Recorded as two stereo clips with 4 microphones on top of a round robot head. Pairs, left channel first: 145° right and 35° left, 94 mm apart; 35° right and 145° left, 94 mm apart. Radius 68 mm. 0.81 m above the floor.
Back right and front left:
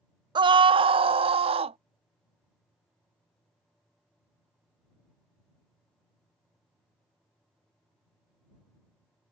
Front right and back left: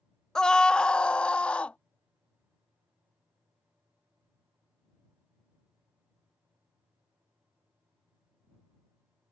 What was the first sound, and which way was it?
A scream, 45° left.